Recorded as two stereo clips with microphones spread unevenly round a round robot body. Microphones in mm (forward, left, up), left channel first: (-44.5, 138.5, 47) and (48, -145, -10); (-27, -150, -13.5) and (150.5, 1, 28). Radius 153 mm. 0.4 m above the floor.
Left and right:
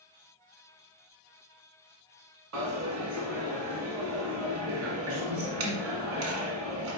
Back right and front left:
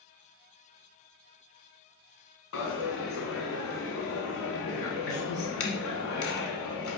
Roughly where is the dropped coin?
Behind right.